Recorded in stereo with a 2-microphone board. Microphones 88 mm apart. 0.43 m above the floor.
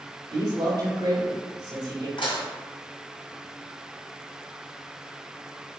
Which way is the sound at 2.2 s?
70° left (ahead or behind).